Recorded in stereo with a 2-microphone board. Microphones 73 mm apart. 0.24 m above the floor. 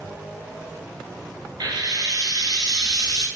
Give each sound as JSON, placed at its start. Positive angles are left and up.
{"t": 1.6, "sound": "frying", "side_deg": -80, "distance_m": 1.1}